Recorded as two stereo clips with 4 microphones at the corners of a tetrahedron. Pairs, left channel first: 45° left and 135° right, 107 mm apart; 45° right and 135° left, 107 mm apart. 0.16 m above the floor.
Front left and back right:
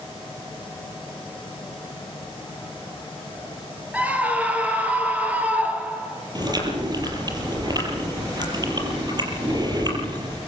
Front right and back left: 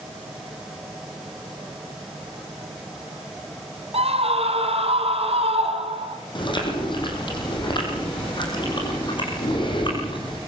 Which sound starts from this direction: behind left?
A scream, at 3.9 s.